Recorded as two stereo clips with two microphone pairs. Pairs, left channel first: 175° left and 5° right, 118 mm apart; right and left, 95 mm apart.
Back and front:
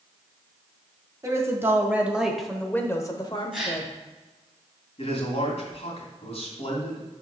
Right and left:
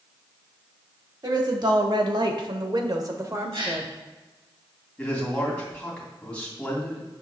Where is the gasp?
80° left, 3 m.